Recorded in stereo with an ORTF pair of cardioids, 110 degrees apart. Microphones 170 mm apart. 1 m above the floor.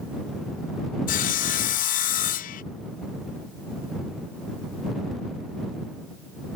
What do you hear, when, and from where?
1.1 s sawing: 50° left